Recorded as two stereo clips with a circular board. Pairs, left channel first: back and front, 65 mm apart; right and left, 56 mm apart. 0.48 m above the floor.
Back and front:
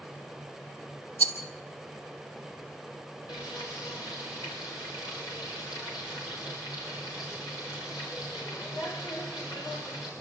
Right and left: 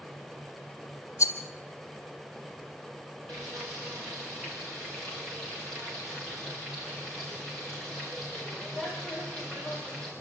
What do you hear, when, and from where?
1.2 s a rattle: 125° right, 2.5 m
3.3 s frying: 175° right, 7.5 m